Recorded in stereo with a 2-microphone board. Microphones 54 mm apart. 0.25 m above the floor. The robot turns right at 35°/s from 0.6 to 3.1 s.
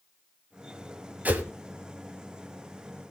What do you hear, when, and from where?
1.2 s a whoosh: 35° right (ahead or behind), 1.2 m; by 1.4 s 30° right (ahead or behind), 1.2 m